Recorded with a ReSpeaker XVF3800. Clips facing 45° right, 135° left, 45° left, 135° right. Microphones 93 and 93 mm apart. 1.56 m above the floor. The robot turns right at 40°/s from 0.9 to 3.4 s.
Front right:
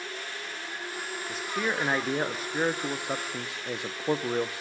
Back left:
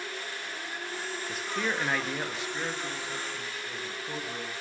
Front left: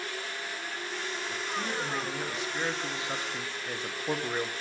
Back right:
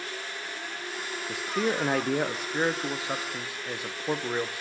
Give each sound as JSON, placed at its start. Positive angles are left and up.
{"t": 1.3, "sound": "a man speaking", "azimuth_deg": -140, "distance_m": 1.0}